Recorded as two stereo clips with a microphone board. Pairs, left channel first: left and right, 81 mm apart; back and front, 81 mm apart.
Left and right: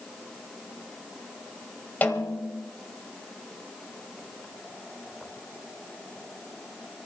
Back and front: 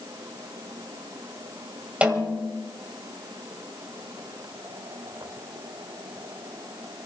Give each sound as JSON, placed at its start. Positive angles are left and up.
{"t": 2.0, "sound": "a snare drum", "azimuth_deg": 55, "distance_m": 1.5}